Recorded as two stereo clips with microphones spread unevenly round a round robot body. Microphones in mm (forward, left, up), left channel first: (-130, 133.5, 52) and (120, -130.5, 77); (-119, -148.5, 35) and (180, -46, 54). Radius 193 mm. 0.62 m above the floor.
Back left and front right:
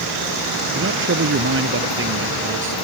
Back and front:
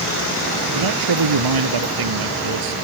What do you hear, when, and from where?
0.7 s a man speaking: 15° left